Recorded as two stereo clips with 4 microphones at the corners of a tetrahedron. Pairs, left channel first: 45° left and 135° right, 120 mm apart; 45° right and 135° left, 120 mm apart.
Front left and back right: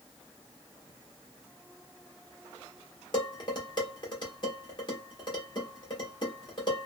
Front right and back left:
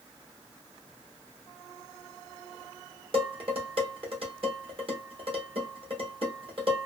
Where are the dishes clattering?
95° left, 1.1 m.